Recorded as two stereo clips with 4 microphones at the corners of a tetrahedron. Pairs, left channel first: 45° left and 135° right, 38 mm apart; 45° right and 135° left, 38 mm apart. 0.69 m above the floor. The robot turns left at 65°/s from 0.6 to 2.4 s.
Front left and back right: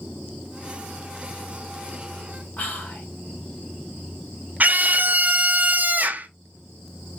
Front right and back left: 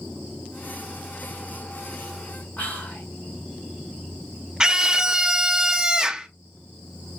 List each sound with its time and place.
2.6 s whispering: straight ahead, 2 m
4.6 s a scream: 160° right, 0.7 m